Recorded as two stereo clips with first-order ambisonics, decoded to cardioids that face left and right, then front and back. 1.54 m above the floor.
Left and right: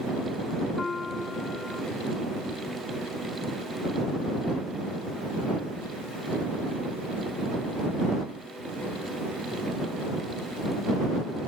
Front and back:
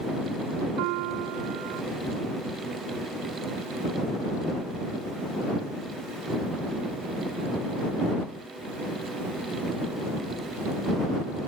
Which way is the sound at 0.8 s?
165° left.